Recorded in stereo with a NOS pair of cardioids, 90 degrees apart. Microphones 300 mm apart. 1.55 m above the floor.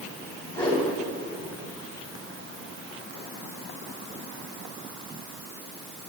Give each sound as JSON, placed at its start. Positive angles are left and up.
{"t": 0.5, "sound": "a whoosh", "azimuth_deg": 20, "distance_m": 4.5}